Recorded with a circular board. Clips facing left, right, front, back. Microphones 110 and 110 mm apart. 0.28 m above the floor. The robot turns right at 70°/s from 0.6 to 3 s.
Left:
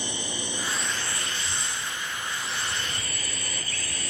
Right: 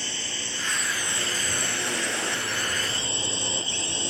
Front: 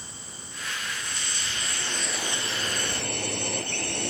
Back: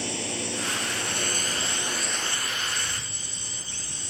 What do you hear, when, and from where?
0.0 s a drone: 165° left; by 4.1 s 25° right